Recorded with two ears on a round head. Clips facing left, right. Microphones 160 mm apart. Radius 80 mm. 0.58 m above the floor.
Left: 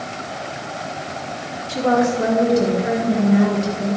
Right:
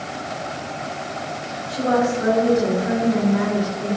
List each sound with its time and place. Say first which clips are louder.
1.7 s a woman speaking: left 2 dB; 75° left (ahead or behind), 4.5 m; by 4.0 s 45° left (ahead or behind), 3.5 m